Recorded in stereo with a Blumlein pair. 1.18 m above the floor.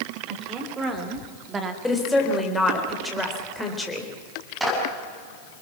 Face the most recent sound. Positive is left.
turn(degrees=0)